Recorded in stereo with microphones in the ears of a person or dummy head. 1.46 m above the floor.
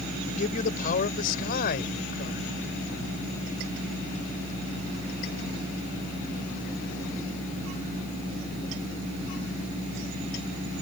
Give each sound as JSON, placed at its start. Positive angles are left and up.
{"t": 0.3, "sound": "a man speaking", "side_deg": 45}